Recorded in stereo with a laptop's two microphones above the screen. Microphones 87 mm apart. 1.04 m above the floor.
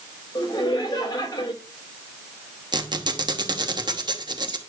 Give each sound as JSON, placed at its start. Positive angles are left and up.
{"t": 0.3, "sound": "laughter", "side_deg": 45, "distance_m": 5.5}
{"t": 2.7, "sound": "a squeak", "side_deg": -50, "distance_m": 1.0}